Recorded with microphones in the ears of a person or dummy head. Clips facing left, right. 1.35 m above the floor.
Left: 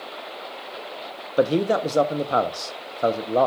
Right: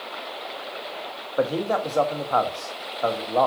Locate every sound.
1.4 s a man speaking: 35° left (ahead or behind), 0.5 m